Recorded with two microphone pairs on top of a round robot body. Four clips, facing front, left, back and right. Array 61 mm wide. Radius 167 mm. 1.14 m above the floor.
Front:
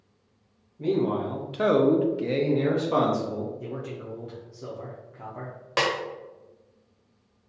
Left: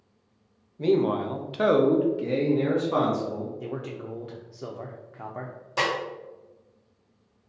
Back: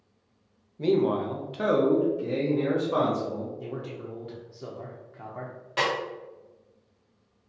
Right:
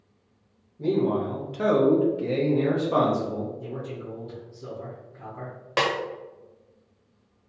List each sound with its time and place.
0.8 s a man speaking: 120° left, 0.8 m; by 3.5 s 5° right, 1.3 m
3.6 s a man speaking: 95° left, 0.5 m
5.8 s a snare drum: 45° right, 1.1 m